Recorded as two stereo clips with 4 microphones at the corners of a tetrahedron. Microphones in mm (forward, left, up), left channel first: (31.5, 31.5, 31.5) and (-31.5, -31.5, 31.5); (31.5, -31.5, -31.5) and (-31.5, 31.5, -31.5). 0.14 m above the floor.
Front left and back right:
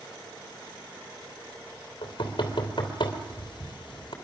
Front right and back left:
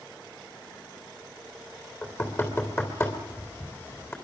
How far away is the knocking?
About 3 m.